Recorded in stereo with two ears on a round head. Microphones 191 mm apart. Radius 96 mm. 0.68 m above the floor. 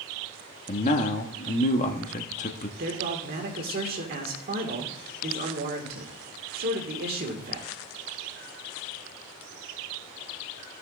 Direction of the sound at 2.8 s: 45° right (ahead or behind).